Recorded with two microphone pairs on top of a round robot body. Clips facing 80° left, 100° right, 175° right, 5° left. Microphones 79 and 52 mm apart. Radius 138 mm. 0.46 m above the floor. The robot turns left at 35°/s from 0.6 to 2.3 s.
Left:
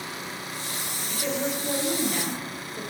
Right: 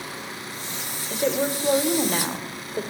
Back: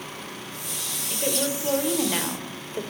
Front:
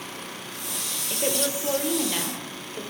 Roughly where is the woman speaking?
Right.